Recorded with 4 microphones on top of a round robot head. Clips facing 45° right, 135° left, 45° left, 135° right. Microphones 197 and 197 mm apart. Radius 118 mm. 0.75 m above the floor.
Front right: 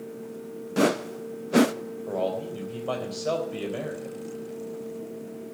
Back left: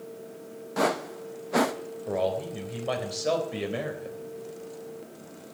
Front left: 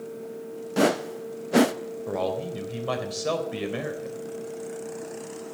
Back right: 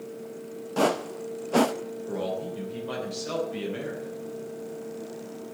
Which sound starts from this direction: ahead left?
A man speaking, at 2.1 s.